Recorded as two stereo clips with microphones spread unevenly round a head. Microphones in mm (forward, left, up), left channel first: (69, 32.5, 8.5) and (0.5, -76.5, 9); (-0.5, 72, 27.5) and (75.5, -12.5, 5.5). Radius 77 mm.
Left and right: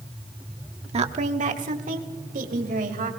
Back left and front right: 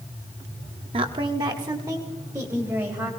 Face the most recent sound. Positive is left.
turn(degrees=-120)